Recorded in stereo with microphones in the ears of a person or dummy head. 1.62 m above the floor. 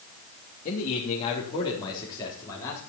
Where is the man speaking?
45° left (ahead or behind), 3 m; by 2.8 s 15° left (ahead or behind), 4 m.